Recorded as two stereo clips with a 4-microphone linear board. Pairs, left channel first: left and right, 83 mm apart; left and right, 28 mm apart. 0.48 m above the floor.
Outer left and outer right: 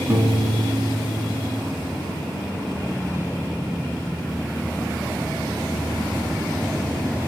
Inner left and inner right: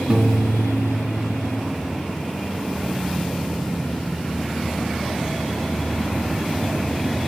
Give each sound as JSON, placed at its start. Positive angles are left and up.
{"t": 0.1, "sound": "a piano", "side_deg": -30, "distance_m": 2.5}